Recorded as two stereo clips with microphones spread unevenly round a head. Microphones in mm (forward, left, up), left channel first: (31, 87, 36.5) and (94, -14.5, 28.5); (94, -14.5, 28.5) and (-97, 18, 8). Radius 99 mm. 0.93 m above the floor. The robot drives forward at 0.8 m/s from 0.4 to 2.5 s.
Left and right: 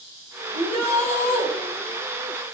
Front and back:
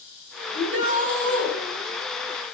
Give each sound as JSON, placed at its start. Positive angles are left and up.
{"t": 0.5, "sound": "a shout", "azimuth_deg": 150, "distance_m": 8.0}